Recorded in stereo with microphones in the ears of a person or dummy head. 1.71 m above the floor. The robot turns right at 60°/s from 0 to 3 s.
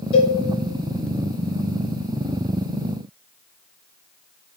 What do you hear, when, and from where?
0.1 s a cowbell: 35° left (ahead or behind), 0.9 m; by 0.4 s 50° left (ahead or behind), 0.9 m